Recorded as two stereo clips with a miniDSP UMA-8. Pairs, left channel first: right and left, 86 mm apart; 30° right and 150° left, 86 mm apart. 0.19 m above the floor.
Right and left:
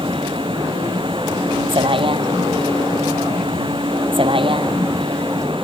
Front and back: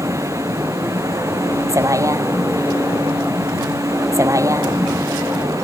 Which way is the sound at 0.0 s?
100° left.